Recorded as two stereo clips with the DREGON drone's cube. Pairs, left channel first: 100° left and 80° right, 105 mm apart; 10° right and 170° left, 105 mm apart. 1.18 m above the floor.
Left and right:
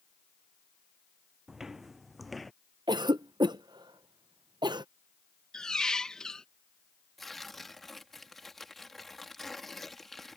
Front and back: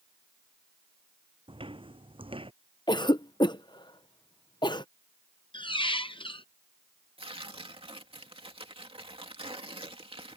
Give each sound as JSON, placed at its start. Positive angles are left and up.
{"t": 1.5, "sound": "footsteps", "azimuth_deg": -165}
{"t": 2.9, "sound": "a cough", "azimuth_deg": -45}
{"t": 5.5, "sound": "a squeak", "azimuth_deg": 20}
{"t": 7.2, "sound": "tearing paper", "azimuth_deg": -170}